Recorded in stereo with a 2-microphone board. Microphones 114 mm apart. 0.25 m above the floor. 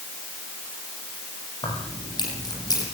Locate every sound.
1.6 s keys jangling: 40° left (ahead or behind), 6.5 m; by 2.8 s 30° left (ahead or behind), 7.5 m